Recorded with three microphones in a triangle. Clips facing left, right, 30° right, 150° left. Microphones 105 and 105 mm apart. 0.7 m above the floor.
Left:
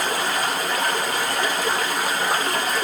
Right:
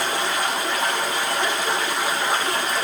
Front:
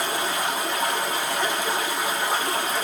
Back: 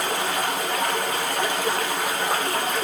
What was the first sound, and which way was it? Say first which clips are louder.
Running water: even, back 1 dB; 130° left.